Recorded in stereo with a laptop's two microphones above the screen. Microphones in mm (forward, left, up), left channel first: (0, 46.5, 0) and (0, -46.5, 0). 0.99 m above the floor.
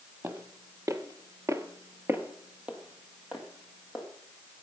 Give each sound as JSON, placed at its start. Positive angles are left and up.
{"t": 0.2, "sound": "footsteps", "side_deg": -25, "distance_m": 1.7}